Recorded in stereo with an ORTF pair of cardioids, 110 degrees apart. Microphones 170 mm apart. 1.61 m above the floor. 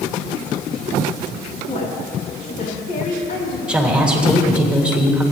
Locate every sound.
1.7 s a woman speaking: 40° left, 5 m; by 3.6 s 60° left, 4.5 m
3.7 s a woman speaking: 5° right, 3.5 m